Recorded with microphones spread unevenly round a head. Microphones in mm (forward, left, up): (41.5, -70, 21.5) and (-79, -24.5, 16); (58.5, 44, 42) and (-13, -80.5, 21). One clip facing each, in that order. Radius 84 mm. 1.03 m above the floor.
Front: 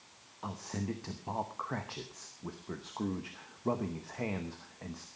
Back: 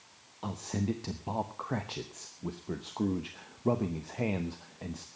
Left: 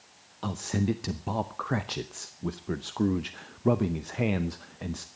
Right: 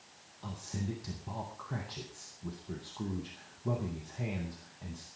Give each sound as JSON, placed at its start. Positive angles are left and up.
{"t": 0.4, "sound": "a man speaking", "azimuth_deg": 90, "distance_m": 0.7}